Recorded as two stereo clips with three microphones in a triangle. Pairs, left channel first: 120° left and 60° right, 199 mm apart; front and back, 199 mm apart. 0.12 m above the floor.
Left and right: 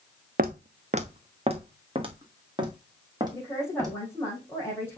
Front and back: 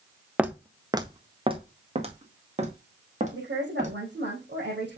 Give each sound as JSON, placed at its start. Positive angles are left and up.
{"t": 0.4, "sound": "footsteps", "azimuth_deg": -95, "distance_m": 0.8}
{"t": 3.3, "sound": "a woman speaking", "azimuth_deg": -160, "distance_m": 3.5}